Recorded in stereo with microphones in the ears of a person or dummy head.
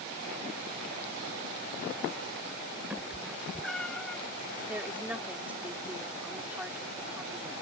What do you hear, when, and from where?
2.9 s a cat meowing: 10° right (ahead or behind); by 4.2 s centre (ahead or behind)
4.7 s a woman speaking: 10° right (ahead or behind)